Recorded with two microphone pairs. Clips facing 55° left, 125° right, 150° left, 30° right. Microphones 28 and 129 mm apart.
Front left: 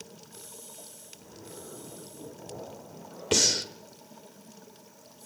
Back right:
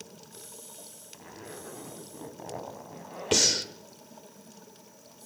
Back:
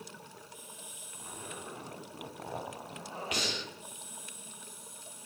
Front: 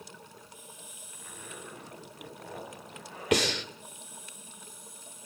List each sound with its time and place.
1.1 s a zipper: 145° right, 4 m
3.3 s breathing: 40° right, 2 m